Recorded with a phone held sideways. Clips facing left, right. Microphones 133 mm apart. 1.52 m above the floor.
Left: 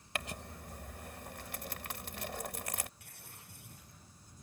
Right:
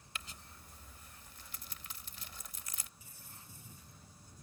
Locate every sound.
0.1 s crumpling: 70° left (ahead or behind)
3.0 s tearing paper: 65° left (ahead or behind)